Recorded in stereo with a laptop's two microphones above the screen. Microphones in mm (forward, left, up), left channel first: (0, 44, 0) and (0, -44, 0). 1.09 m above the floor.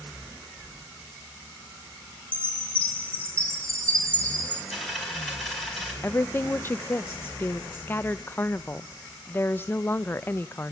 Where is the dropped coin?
Centre (ahead or behind), 4.5 m.